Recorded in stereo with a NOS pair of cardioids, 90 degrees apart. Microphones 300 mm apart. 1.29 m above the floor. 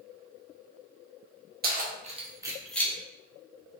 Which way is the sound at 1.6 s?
30° right.